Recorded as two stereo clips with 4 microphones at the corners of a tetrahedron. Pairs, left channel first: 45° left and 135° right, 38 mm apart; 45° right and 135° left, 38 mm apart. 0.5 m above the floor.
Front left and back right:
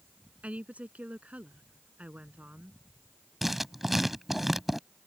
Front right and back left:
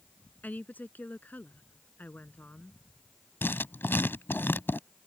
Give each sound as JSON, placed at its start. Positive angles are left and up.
{"t": 0.4, "sound": "a woman speaking", "azimuth_deg": -85}
{"t": 3.4, "sound": "writing", "azimuth_deg": -50}